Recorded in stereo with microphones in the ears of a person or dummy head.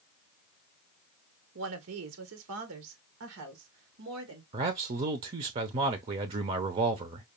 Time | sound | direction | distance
1.6 | a woman speaking | 65° right (ahead or behind) | 1.0 m
4.5 | a man speaking | 30° right (ahead or behind) | 0.8 m